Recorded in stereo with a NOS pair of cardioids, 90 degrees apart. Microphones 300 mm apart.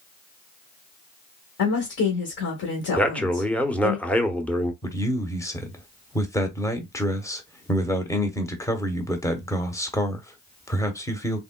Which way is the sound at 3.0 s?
5° left.